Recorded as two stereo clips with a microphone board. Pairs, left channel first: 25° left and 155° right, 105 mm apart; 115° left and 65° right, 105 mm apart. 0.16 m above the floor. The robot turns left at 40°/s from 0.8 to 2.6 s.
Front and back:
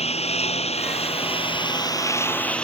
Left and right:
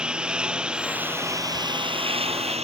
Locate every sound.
0.0 s a lawn mower: 15° left; by 2.6 s 60° right